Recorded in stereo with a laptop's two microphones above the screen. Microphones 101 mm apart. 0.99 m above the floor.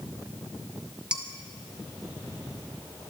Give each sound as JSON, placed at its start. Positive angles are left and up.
{"t": 1.1, "sound": "dishes clattering", "side_deg": -10, "distance_m": 0.7}